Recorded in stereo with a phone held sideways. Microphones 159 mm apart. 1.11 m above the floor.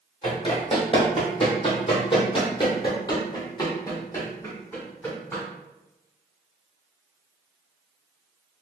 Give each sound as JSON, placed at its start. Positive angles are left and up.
{"t": 0.2, "sound": "running footsteps", "side_deg": 35, "distance_m": 1.7}